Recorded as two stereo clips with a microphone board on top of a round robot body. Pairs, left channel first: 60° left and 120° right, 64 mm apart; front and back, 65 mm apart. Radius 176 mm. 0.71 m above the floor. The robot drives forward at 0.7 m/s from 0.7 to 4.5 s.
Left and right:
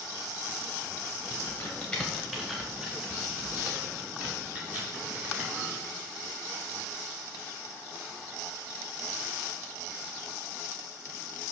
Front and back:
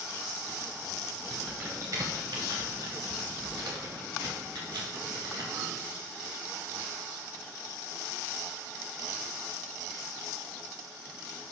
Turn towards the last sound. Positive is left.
turn(degrees=170)